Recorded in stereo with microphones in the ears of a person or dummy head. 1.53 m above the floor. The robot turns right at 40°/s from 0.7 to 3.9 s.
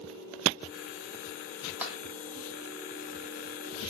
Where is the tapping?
10° right (ahead or behind), 0.6 m; by 2.0 s 20° right (ahead or behind), 0.6 m.